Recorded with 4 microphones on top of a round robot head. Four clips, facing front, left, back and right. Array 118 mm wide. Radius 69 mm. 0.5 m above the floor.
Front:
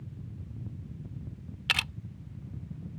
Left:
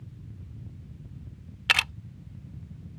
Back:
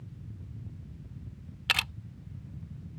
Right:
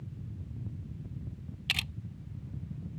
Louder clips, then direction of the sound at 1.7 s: Left 12 dB, back 1 dB; 100° left.